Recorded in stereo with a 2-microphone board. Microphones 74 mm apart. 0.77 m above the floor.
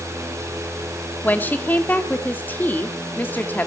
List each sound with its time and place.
1.2 s a woman speaking: 20° left (ahead or behind), 2.0 m